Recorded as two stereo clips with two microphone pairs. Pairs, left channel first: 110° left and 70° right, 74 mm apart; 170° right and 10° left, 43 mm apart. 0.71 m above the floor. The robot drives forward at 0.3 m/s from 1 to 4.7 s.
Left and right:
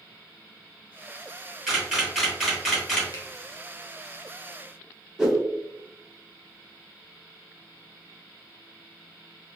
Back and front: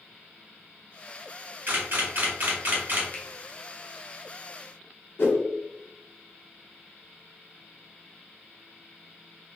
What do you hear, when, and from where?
1.7 s a camera shutter: 15° left, 1.8 m; by 3.0 s 20° left, 1.5 m
3.1 s a finger snap: 140° left, 0.7 m; by 3.3 s 145° left, 0.8 m
5.2 s a whoosh: 145° right, 0.6 m